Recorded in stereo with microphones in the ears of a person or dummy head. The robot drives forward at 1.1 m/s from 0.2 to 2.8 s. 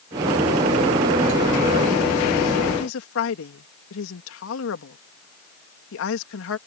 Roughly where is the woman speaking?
Left.